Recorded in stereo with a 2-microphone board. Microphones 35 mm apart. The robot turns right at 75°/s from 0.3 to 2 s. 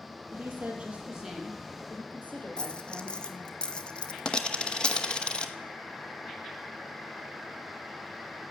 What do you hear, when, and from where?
0.3 s a woman speaking: 80° right, 3.5 m; by 3.6 s 45° left, 3.5 m
2.6 s a dropped coin: 25° left (ahead or behind), 0.8 m